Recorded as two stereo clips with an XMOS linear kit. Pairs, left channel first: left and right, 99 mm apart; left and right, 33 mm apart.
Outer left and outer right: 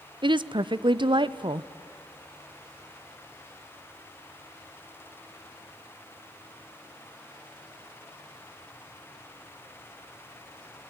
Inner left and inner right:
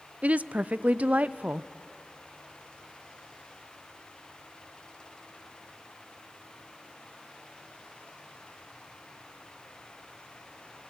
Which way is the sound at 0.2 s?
55° right (ahead or behind).